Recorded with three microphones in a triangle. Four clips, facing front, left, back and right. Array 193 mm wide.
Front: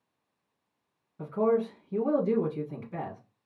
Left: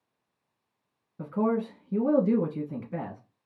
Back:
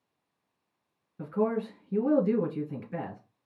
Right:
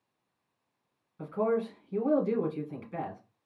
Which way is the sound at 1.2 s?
110° left.